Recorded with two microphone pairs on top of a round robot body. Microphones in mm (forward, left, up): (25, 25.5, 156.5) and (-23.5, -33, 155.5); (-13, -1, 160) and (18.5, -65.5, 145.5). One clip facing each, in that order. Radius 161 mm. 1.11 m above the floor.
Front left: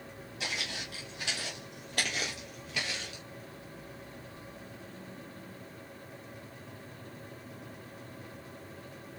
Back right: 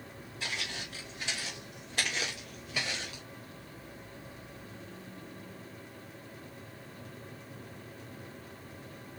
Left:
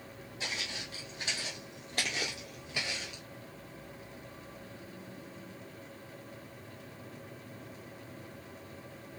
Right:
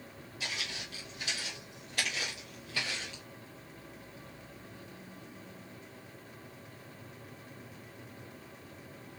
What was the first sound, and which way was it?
Footsteps, 60° left.